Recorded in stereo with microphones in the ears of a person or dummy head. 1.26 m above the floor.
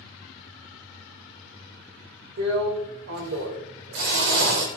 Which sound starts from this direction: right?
A drill, at 2.4 s.